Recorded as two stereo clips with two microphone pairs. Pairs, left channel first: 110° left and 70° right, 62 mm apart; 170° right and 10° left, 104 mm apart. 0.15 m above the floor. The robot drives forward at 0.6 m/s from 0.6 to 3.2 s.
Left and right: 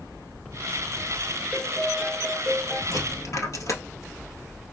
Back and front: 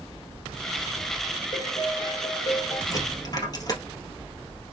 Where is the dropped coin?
135° left, 1.7 m; by 3.8 s 140° left, 1.8 m.